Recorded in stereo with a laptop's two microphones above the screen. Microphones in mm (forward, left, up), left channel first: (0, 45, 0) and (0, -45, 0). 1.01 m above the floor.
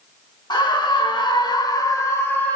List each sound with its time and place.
0.5 s a scream: 55° left (ahead or behind), 1.3 m; by 2.6 s 15° left (ahead or behind), 0.9 m